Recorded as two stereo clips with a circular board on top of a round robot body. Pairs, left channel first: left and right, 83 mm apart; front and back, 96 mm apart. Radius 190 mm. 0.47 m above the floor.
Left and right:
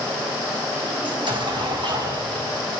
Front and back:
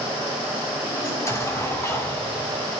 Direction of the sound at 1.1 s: 60° right.